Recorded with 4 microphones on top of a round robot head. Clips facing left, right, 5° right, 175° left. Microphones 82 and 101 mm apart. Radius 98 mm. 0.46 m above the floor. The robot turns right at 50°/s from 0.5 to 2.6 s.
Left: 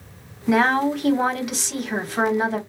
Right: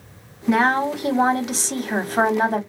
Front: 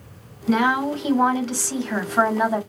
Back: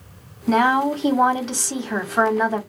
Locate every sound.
0.5 s a woman speaking: 175° left, 1.3 m; by 2.6 s 80° right, 1.3 m